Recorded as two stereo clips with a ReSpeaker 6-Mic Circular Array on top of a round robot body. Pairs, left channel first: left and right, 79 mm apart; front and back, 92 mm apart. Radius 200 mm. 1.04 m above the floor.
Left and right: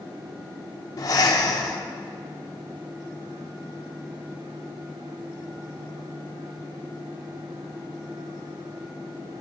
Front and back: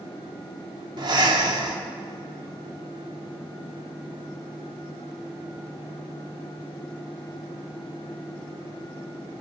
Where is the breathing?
135° left, 0.8 m.